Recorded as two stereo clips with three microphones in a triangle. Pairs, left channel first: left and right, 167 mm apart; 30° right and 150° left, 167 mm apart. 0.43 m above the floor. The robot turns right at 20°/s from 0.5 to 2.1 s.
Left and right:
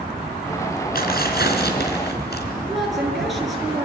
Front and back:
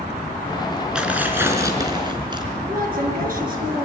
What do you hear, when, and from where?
0.9 s tearing paper: 65° left, 3.5 m; by 2.5 s 90° left, 3.5 m
2.7 s a woman speaking: straight behind, 6.5 m